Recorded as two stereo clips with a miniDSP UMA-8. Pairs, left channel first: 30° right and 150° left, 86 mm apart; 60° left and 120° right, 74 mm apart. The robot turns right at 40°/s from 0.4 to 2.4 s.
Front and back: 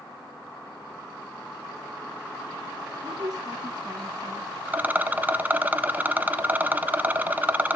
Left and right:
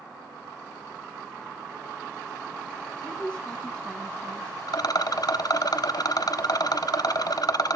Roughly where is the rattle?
Left.